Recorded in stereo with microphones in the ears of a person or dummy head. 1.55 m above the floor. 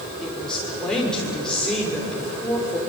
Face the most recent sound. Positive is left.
turn(degrees=5)  # may be behind; listen again after turning